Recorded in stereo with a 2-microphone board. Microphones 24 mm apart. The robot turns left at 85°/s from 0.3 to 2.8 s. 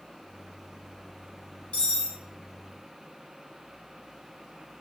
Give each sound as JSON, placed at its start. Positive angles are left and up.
{"t": 1.7, "sound": "cutlery clinking", "azimuth_deg": 100, "distance_m": 1.0}